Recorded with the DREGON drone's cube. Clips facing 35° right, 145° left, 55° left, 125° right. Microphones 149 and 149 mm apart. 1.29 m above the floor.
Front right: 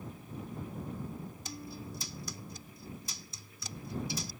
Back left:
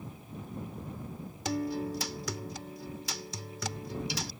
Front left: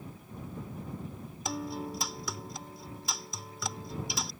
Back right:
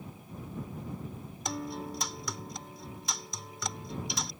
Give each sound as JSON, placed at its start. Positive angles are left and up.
{"t": 1.4, "sound": "a guitar", "azimuth_deg": 145}